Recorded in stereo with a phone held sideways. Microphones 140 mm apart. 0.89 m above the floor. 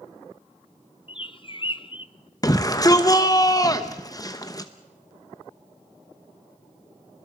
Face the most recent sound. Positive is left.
turn(degrees=30)  # may be behind; listen again after turning